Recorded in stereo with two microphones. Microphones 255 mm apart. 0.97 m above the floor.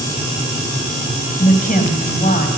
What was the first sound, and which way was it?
A woman speaking, 35° left (ahead or behind).